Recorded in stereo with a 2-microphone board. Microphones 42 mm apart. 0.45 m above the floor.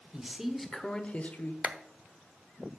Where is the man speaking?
15° right (ahead or behind), 1.2 m; by 1.5 s 50° left (ahead or behind), 1.1 m.